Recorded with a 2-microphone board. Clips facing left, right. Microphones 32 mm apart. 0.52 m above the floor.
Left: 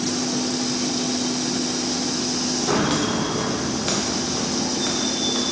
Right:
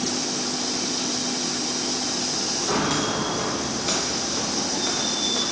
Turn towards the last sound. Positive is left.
turn(degrees=25)  # may be behind; listen again after turning